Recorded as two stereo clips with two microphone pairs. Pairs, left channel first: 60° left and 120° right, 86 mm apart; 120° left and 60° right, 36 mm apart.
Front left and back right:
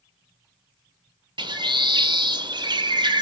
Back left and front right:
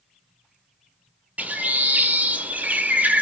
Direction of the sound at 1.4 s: 100° right.